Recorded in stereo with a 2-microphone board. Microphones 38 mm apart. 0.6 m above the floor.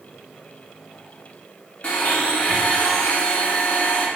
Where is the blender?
35° left (ahead or behind), 0.7 m.